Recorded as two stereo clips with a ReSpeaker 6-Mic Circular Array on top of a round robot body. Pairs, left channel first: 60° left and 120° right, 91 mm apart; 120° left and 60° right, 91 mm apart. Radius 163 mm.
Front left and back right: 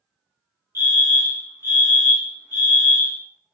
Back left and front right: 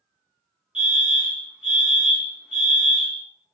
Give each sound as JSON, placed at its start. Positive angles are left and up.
{"t": 0.8, "sound": "a fire alarm", "azimuth_deg": -120, "distance_m": 1.0}